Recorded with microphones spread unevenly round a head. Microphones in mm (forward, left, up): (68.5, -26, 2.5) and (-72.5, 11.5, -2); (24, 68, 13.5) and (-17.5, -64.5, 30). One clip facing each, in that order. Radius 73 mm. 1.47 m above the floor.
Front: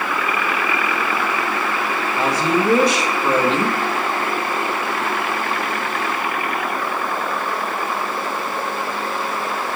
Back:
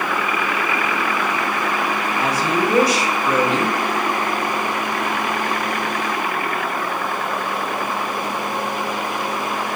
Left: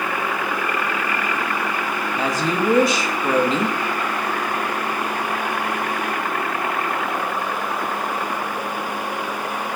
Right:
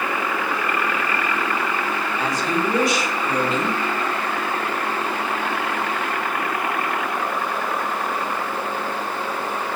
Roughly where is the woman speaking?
Ahead left.